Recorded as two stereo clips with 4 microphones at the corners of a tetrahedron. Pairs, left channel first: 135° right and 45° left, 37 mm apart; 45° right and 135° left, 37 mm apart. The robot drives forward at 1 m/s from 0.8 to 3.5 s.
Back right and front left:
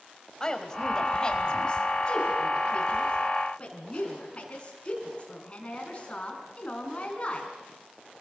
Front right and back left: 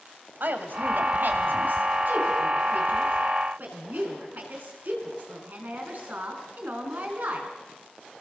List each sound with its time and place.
0.4 s a woman speaking: 155° left, 2.5 m; by 7.5 s 170° left, 5 m